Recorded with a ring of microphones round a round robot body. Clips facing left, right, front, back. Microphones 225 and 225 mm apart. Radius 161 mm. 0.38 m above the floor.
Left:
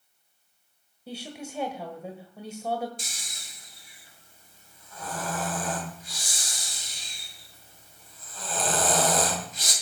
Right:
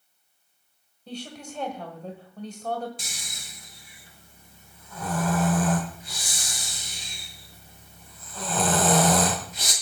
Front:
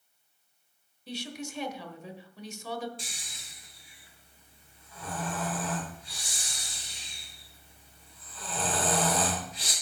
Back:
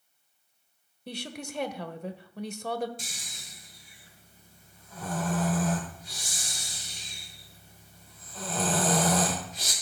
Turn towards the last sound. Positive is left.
turn(degrees=-125)